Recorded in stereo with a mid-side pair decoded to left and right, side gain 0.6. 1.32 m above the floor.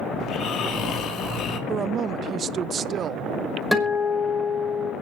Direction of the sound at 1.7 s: 45° right.